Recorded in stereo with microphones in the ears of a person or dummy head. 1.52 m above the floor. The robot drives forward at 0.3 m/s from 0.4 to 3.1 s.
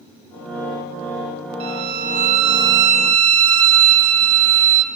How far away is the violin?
About 0.6 m.